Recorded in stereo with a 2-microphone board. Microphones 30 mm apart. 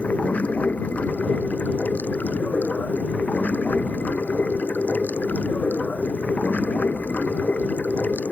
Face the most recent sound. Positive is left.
turn(degrees=65)  # may be behind; listen again after turning